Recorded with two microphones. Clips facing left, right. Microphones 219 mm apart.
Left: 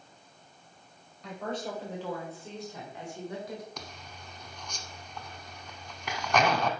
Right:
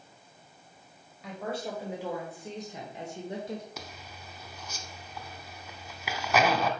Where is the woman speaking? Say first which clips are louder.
Even; 5° right (ahead or behind), 1.8 m; by 3.7 s 30° right (ahead or behind), 1.4 m.